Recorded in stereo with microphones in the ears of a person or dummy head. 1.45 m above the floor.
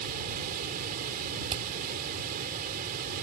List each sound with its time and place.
0.0 s running water: 40° right (ahead or behind)
1.5 s hammering: 25° right (ahead or behind)